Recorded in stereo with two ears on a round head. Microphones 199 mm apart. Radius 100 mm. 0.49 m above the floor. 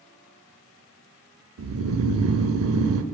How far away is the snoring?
About 0.6 m.